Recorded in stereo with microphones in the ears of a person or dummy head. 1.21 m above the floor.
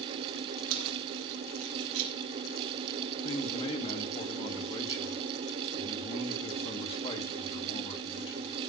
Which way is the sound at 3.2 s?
30° left (ahead or behind).